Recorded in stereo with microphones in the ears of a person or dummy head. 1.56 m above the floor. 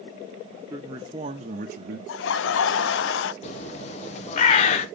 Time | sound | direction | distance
0.7 | a man speaking | 15° right (ahead or behind) | 1.0 m
2.1 | laughter | 70° left (ahead or behind) | 0.5 m
3.4 | a bird | 40° left (ahead or behind) | 0.8 m